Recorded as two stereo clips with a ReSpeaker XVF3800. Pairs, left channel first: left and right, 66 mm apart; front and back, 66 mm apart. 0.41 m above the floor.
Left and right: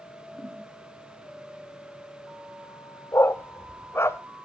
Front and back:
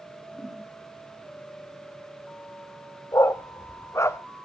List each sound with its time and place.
0.3 s a whoosh: 70° left, 5.5 m
3.1 s a dog barking: 40° left, 0.6 m